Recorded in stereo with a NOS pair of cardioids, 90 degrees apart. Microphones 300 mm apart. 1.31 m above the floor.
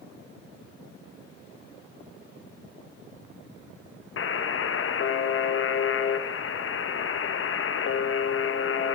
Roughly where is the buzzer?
Ahead left.